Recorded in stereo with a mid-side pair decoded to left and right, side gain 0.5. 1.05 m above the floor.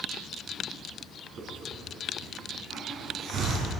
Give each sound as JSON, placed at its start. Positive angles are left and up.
{"t": 1.4, "sound": "a hiss", "azimuth_deg": -65, "distance_m": 4.5}